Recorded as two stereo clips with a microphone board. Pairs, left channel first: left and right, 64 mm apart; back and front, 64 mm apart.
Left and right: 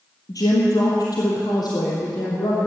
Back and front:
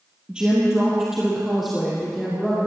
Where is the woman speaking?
75° left, 2.5 m; by 2.6 s 95° left, 4 m.